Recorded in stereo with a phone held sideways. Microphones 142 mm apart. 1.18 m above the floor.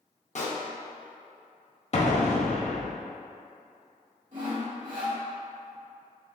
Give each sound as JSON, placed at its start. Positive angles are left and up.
{"t": 0.3, "sound": "a pop", "side_deg": 55, "distance_m": 0.6}
{"t": 1.9, "sound": "an explosion", "side_deg": 50, "distance_m": 0.6}
{"t": 4.3, "sound": "sawing", "side_deg": -60, "distance_m": 2.0}